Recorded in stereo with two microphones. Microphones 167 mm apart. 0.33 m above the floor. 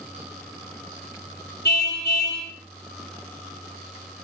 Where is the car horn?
80° left, 5.5 m.